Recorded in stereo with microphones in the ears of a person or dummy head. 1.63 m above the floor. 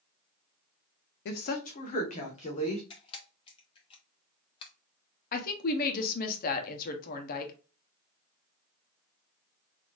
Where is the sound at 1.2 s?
55° left (ahead or behind), 0.6 m; by 2.8 s 35° left (ahead or behind), 1.7 m.